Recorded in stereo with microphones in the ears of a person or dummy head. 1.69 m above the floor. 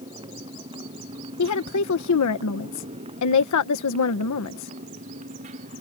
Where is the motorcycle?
25° right (ahead or behind); by 5.8 s 40° right (ahead or behind).